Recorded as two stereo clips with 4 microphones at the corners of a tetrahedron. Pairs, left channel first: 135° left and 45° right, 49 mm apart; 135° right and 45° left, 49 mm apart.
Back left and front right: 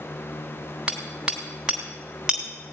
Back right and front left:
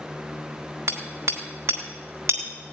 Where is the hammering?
30° left, 3.5 m.